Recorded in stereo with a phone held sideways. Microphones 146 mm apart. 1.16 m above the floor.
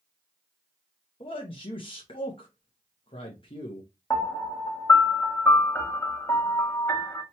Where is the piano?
20° left (ahead or behind), 0.9 m.